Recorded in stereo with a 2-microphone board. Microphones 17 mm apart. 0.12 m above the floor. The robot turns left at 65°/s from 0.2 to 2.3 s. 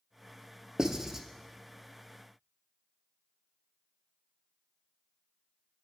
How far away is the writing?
About 0.6 m.